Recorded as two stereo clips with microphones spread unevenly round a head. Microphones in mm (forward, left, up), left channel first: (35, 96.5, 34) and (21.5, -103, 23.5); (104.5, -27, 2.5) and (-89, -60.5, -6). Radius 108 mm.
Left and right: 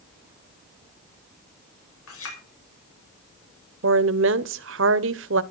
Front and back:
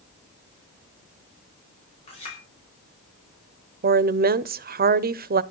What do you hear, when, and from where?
2.1 s a clink: 75° left, 6 m
3.8 s a woman speaking: 130° right, 0.9 m